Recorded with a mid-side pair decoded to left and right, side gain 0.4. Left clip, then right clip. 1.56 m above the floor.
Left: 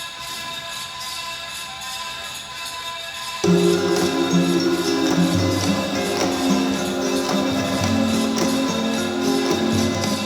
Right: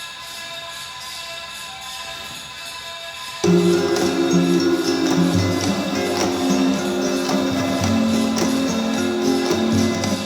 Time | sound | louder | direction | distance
0.0 | a fan | left 2 dB | 40° left | 1.9 m
3.4 | a guitar | right 1 dB | 10° right | 1.0 m